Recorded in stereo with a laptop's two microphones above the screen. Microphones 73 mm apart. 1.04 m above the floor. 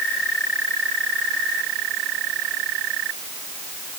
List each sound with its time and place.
Only background noise.